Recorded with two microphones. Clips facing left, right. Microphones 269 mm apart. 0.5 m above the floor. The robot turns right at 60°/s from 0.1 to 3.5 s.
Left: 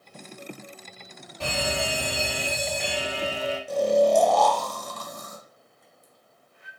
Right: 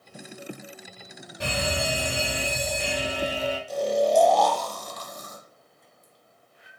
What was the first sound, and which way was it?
An alarm, 160° right.